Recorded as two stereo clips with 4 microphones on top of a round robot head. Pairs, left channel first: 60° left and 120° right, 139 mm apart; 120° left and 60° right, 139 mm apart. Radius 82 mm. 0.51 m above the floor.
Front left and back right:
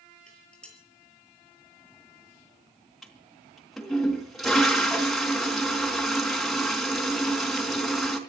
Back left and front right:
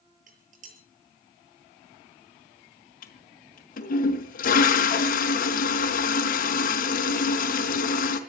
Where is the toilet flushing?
150° left, 3.5 m.